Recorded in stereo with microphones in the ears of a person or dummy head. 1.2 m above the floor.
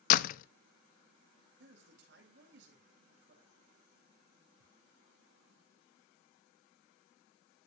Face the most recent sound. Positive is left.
turn(degrees=-40)  # may be behind; listen again after turning